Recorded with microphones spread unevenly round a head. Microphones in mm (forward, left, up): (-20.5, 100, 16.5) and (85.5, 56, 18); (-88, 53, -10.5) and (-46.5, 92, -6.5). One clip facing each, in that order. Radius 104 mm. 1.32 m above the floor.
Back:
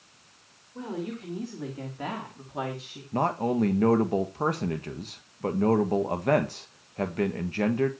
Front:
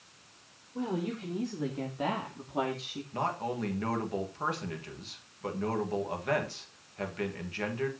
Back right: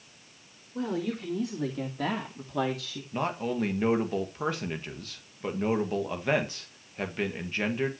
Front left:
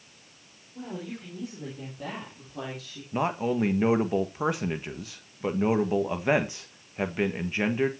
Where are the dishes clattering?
I don't hear dishes clattering.